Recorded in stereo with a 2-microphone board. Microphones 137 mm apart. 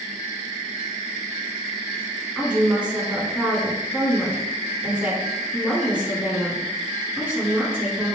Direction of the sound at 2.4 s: 10° right (ahead or behind).